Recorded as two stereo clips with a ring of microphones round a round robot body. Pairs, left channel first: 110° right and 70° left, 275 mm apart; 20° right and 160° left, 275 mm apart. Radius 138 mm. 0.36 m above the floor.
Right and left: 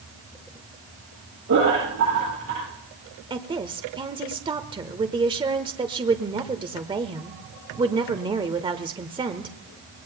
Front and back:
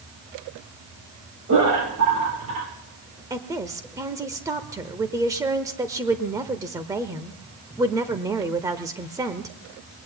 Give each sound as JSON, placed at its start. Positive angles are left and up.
{"t": 1.5, "sound": "laughter", "azimuth_deg": 115, "distance_m": 8.5}
{"t": 3.3, "sound": "a woman speaking", "azimuth_deg": 100, "distance_m": 0.9}